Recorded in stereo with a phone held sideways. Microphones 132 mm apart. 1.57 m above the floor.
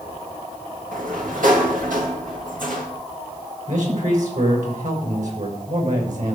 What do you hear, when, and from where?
0.9 s a sliding door: 85° right, 2.5 m
3.7 s a man speaking: 70° right (ahead or behind), 6.5 m